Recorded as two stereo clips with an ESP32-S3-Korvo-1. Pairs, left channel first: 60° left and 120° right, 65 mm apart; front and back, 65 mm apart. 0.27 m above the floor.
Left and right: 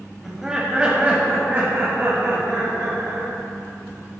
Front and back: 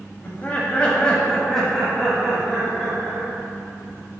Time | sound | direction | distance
0.2 | laughter | 30° right | 1.2 m